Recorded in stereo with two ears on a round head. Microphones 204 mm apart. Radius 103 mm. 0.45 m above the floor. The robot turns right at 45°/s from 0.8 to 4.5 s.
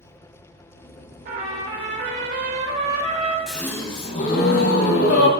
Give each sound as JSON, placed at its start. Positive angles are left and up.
{"t": 1.2, "sound": "a trumpet", "azimuth_deg": -125, "distance_m": 1.7}
{"t": 3.5, "sound": "a gasp", "azimuth_deg": 0, "distance_m": 1.0}